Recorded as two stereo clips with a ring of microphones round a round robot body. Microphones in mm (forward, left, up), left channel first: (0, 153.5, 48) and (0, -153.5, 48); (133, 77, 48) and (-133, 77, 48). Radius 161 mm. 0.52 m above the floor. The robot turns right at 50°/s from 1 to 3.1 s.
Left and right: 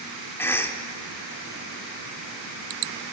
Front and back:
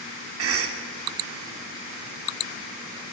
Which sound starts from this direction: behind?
A cough, at 0.4 s.